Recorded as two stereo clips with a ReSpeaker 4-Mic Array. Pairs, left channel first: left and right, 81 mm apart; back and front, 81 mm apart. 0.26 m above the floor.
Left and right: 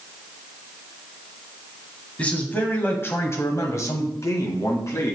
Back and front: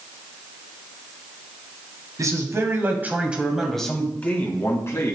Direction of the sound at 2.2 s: 25° left.